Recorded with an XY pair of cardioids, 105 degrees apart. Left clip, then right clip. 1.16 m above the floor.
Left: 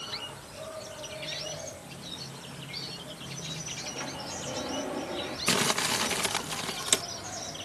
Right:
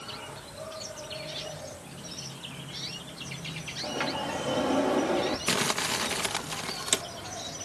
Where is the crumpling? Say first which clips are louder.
Left 5 dB; 10° left.